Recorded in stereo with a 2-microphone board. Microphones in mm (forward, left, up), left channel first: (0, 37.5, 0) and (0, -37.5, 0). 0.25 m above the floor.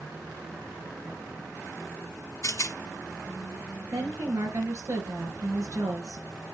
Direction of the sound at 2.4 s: 50° left (ahead or behind).